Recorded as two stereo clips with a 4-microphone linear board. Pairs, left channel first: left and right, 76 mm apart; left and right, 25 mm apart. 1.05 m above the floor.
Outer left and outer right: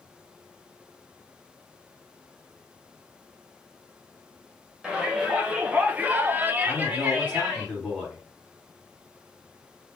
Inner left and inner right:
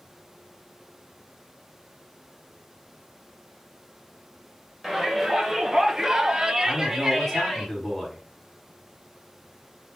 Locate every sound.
4.8 s a shout: 10° right (ahead or behind), 1.3 m; by 7.7 s 15° right (ahead or behind), 0.9 m
6.7 s a man speaking: 10° left (ahead or behind), 1.7 m